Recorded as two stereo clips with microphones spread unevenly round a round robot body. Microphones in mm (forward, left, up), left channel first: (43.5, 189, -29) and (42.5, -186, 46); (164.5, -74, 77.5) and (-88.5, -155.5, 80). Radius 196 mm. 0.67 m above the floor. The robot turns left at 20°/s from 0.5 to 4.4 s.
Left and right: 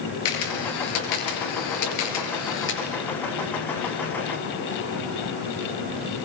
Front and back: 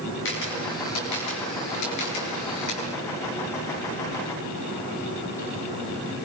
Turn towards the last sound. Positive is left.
turn(degrees=-5)